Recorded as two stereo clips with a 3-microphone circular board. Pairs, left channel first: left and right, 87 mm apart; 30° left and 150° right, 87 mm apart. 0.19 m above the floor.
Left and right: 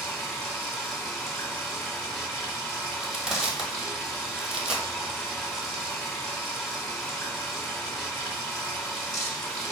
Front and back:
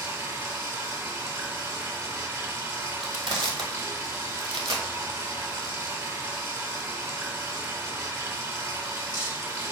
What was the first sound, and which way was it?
Running water, 175° left.